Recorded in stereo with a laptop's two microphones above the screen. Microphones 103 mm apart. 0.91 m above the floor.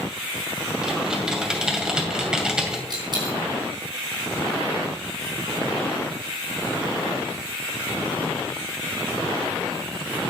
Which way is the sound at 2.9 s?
50° right (ahead or behind).